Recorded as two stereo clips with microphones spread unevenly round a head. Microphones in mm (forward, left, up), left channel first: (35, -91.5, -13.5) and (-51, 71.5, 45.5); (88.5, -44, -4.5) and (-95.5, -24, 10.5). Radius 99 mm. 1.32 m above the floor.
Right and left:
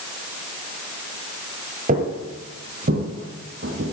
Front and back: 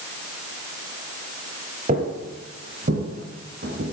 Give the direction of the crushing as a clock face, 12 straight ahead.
I don't hear crushing.